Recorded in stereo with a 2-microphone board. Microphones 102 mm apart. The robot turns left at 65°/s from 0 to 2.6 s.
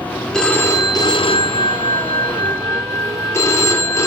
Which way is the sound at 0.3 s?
175° left.